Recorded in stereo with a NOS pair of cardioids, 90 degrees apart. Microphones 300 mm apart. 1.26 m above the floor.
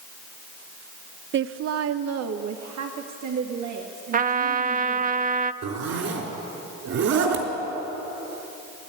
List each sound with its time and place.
1.3 s a woman speaking: 40° right, 0.5 m; by 5.1 s 70° right, 3 m
4.1 s a trumpet: 30° right, 0.6 m
5.6 s a zipper: 65° right, 3.5 m